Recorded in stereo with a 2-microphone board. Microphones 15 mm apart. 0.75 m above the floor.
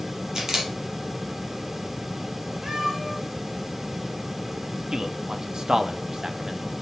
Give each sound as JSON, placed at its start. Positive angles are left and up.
{"t": 0.3, "sound": "a camera shutter", "side_deg": -45, "distance_m": 3.5}
{"t": 2.6, "sound": "a cat meowing", "side_deg": -50, "distance_m": 4.0}
{"t": 4.9, "sound": "a man speaking", "side_deg": -40, "distance_m": 1.3}